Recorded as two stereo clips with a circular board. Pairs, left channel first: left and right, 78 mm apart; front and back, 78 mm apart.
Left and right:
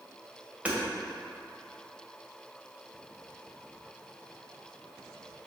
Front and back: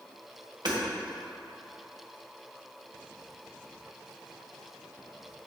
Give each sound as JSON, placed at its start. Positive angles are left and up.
{"t": 0.7, "sound": "hammering", "azimuth_deg": -160, "distance_m": 1.8}